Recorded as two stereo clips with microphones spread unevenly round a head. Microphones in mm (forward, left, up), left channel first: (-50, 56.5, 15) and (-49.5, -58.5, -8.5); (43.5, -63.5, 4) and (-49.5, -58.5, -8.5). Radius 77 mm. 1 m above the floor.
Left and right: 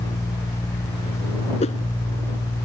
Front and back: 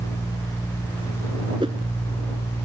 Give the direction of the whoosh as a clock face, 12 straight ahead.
8 o'clock.